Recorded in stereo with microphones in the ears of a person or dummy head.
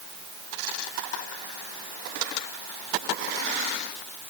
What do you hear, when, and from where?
Only background noise.